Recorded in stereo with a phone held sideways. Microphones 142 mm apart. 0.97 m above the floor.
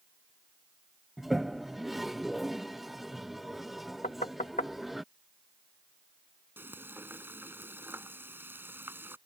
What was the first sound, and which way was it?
A toilet flushing, centre (ahead or behind).